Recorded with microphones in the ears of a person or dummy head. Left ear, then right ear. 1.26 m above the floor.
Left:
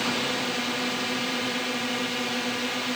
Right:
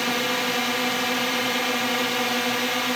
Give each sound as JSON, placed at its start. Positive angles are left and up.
{"t": 0.0, "sound": "a drone", "side_deg": -30}